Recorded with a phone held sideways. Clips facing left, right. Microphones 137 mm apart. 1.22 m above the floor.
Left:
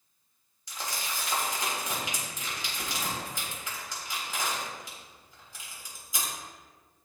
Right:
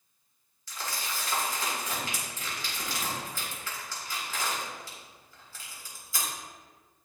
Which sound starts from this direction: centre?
Crumpling, at 0.7 s.